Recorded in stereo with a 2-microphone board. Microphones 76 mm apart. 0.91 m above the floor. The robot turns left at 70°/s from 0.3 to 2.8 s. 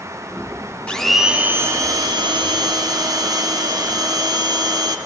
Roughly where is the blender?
Ahead.